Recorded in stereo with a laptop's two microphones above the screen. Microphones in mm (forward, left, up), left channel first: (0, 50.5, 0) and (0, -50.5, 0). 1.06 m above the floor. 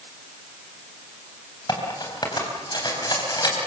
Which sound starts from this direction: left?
Cutlery clinking, at 1.7 s.